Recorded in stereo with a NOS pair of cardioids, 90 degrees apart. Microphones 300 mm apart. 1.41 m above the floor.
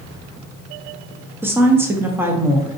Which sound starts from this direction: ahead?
A woman speaking, at 1.4 s.